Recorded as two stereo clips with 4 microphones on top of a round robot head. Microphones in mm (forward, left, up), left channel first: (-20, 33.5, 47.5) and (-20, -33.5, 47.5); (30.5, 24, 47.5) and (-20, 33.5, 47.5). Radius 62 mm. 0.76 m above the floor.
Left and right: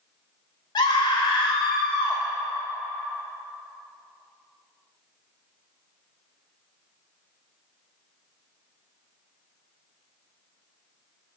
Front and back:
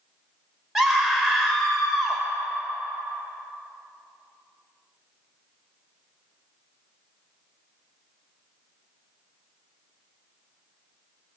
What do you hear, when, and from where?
0.8 s a scream: 85° left, 3.5 m